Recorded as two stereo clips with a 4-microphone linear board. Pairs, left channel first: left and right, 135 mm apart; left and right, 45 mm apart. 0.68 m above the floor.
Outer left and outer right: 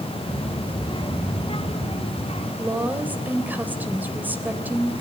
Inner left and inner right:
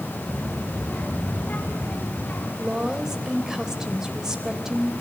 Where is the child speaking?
30° left (ahead or behind), 2 m; by 2.5 s 50° left (ahead or behind), 4 m.